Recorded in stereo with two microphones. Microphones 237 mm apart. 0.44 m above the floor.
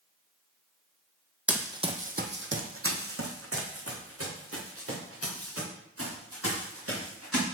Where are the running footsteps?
5° right (ahead or behind), 0.8 m; by 7.4 s 70° right (ahead or behind), 4 m.